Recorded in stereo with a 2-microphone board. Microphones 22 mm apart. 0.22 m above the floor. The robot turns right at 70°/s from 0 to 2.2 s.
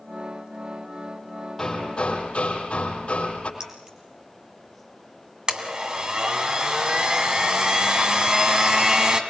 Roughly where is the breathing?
I don't hear breathing.